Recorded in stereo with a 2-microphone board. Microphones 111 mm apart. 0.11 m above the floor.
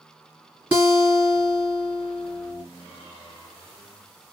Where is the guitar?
15° right (ahead or behind), 1.8 m.